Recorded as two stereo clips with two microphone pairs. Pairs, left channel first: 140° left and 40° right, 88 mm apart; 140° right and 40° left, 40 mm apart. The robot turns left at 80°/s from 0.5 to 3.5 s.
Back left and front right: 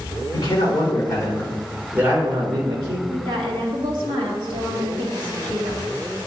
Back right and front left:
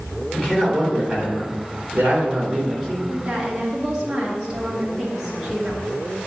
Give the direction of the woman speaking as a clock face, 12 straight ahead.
12 o'clock.